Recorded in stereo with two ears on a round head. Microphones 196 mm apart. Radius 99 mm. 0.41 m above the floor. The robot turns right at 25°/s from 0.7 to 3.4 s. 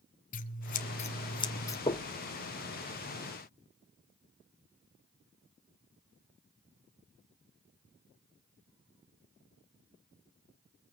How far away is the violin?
No violin in this recording.